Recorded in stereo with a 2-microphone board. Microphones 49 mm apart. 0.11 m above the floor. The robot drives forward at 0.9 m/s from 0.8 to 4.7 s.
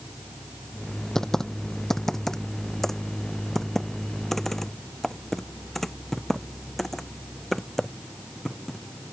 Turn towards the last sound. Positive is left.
turn(degrees=5)  # may be behind; listen again after turning